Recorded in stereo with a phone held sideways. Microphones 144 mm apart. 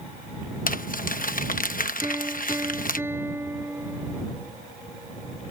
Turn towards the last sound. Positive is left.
turn(degrees=-15)  # may be behind; listen again after turning